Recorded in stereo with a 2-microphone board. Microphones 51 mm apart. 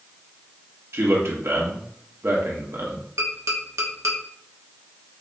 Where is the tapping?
75° right (ahead or behind), 0.9 m.